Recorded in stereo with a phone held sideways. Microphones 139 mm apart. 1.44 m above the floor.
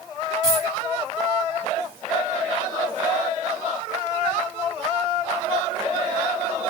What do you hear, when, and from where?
0.4 s a dropped coin: 30° right (ahead or behind), 1.9 m